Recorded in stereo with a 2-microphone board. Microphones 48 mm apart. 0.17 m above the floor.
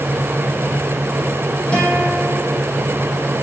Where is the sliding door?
I don't hear a sliding door.